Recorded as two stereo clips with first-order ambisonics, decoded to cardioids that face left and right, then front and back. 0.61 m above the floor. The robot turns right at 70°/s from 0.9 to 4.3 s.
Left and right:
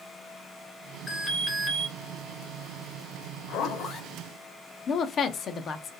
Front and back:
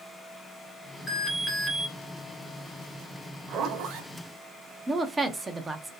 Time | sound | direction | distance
1.1 | an alarm | 45° left | 1.6 m
3.5 | a zipper | 125° left | 1.2 m
4.9 | a woman speaking | 115° left | 0.6 m